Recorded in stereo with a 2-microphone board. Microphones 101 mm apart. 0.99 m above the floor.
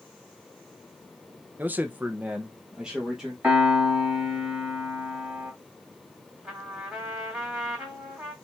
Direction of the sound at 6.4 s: 10° right (ahead or behind).